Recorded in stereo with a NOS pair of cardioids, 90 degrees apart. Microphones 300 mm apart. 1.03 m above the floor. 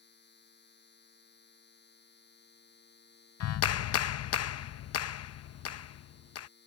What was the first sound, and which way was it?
A machine running, 35° left.